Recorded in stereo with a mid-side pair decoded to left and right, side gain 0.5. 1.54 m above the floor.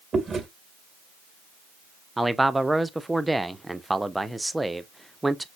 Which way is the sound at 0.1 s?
35° right.